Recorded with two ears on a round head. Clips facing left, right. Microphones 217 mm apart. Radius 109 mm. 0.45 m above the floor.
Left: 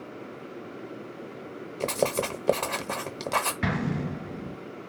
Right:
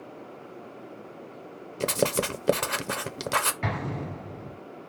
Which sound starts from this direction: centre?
Writing, at 1.8 s.